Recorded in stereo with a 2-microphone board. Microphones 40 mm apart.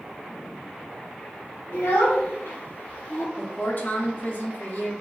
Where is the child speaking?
85° left, 1.5 m; by 3.3 s 45° left (ahead or behind), 0.9 m.